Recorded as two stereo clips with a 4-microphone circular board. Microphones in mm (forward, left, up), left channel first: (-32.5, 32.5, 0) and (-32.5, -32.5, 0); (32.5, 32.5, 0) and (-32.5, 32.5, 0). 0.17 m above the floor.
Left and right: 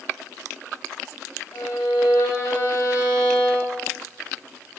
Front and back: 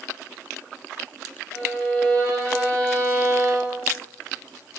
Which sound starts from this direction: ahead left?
A violin, at 1.5 s.